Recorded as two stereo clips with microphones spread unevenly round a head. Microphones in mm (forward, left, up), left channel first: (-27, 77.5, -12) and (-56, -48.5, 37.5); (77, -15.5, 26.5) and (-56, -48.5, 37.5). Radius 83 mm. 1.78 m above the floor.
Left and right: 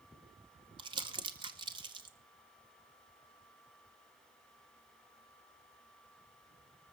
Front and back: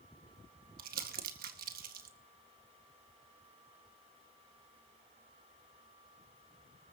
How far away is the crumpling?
About 1.9 m.